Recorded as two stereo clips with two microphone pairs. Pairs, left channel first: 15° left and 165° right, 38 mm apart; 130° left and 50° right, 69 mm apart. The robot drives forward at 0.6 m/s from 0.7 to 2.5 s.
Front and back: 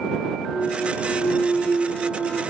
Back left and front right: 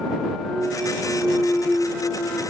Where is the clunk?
40° left, 2.5 m; by 2.4 s 65° left, 2 m.